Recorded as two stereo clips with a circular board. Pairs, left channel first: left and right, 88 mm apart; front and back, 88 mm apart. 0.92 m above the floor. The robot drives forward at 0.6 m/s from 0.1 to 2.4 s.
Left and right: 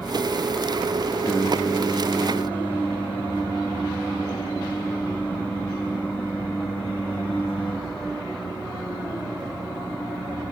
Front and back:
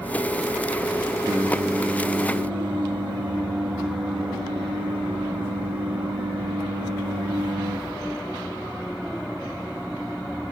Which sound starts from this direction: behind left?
Singing, at 1.2 s.